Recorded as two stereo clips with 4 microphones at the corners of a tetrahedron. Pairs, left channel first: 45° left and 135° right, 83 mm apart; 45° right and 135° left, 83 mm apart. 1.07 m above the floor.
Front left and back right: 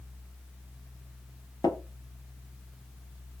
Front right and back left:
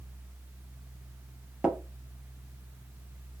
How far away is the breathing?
I don't hear breathing.